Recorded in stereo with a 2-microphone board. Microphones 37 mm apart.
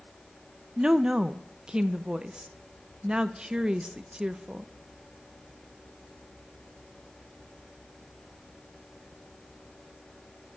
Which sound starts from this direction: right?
A woman speaking, at 0.8 s.